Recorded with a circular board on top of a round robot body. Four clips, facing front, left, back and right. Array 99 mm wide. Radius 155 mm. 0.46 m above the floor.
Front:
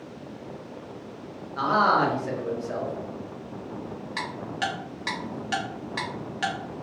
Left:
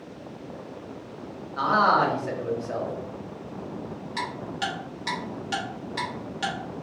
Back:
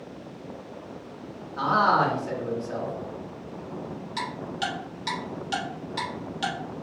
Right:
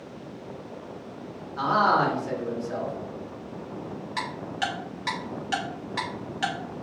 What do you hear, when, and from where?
1.6 s a man speaking: 55° left, 1.3 m
4.2 s ticking: 30° right, 1.6 m